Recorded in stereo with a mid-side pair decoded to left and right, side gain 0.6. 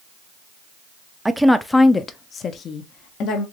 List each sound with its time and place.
1.2 s a woman speaking: 10° right, 0.6 m; by 3.4 s 60° left, 1.2 m